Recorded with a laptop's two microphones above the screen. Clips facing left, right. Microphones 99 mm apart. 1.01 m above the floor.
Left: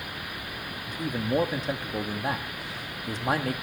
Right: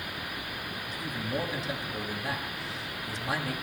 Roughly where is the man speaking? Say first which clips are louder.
Left 7 dB; left.